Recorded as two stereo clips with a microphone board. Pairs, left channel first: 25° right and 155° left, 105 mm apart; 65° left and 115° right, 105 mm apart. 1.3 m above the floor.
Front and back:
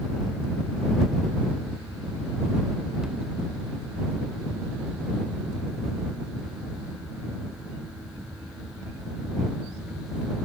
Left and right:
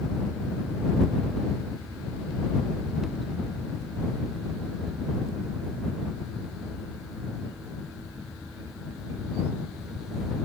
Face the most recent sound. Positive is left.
No sound to turn to.